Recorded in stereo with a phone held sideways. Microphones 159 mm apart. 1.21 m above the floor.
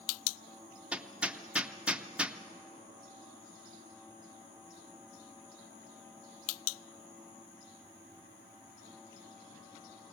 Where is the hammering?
5° right (ahead or behind), 0.6 m.